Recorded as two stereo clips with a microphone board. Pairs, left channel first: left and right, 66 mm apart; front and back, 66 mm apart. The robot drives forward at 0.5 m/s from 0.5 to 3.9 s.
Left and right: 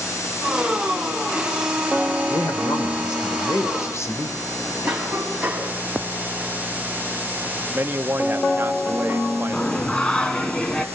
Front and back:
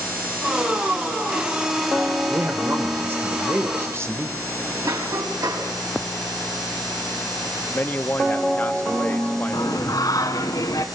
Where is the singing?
15° left, 1.4 m.